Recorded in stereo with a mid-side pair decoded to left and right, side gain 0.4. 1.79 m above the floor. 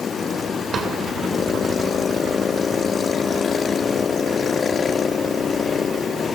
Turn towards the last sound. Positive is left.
turn(degrees=-50)